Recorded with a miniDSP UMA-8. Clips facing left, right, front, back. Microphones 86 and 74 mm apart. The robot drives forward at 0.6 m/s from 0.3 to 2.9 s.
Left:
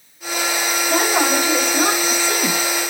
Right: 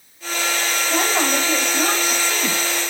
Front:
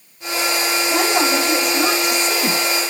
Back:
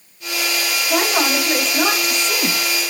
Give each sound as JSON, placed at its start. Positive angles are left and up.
{"t": 0.9, "sound": "a woman speaking", "azimuth_deg": 130, "distance_m": 4.0}